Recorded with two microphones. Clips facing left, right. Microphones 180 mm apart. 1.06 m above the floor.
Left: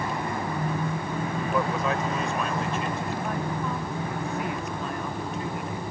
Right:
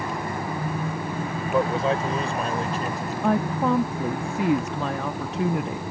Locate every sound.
1.5 s a man speaking: 25° right (ahead or behind); by 3.1 s 40° right (ahead or behind)
3.2 s a woman speaking: 85° right